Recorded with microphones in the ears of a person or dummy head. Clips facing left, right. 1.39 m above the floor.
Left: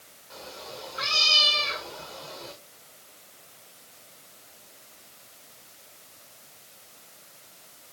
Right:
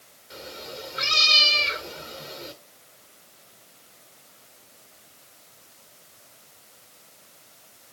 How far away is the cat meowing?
About 1.7 m.